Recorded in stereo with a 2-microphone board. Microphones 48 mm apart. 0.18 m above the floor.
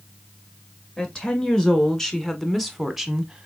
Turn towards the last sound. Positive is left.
turn(degrees=-15)  # may be behind; listen again after turning